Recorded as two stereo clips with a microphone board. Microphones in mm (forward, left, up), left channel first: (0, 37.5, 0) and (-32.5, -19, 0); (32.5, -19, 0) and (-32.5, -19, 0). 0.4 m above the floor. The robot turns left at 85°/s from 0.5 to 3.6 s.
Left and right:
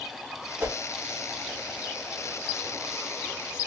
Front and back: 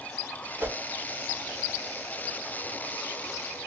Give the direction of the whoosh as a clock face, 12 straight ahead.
5 o'clock.